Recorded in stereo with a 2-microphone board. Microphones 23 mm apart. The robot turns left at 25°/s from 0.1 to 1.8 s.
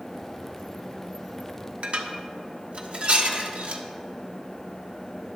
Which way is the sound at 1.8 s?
60° right (ahead or behind).